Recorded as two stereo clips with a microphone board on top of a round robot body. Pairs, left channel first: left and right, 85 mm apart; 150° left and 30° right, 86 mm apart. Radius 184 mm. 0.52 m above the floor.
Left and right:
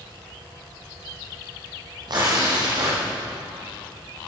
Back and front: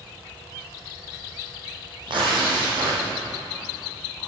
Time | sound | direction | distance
2.1 | tearing paper | 55° right | 9 m